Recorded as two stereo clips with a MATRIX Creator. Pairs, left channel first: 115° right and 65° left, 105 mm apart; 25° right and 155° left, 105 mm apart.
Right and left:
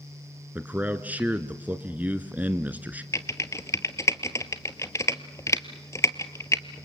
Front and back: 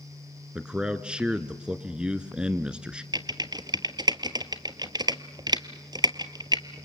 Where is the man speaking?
100° left, 1.1 m.